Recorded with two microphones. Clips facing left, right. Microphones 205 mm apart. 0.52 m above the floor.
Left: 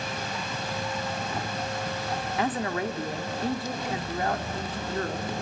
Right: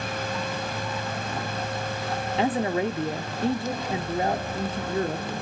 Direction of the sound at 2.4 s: 25° right (ahead or behind).